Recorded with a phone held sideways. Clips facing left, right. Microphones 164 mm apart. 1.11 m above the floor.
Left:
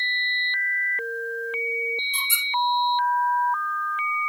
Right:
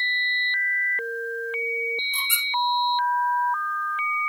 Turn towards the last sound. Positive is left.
turn(degrees=-65)  # may be behind; listen again after turning